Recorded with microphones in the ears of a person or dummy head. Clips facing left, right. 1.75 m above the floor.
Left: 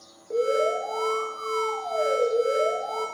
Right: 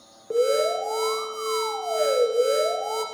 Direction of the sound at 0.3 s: 50° right (ahead or behind).